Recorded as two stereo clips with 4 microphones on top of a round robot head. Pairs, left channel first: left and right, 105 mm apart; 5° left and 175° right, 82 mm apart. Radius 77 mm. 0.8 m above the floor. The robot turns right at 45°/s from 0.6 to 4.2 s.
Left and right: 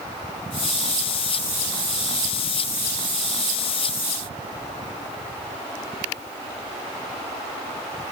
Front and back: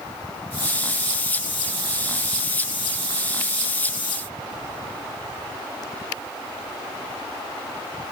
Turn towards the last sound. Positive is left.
No sound to turn to.